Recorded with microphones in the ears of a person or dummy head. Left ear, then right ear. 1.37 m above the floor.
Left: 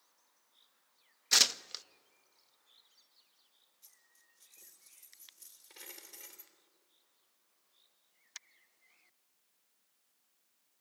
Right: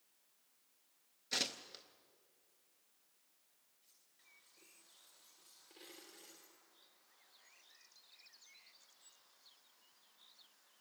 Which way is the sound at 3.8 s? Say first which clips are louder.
Left 3 dB; 50° left (ahead or behind).